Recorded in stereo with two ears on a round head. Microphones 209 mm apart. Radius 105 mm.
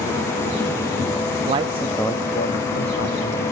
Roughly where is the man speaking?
Right.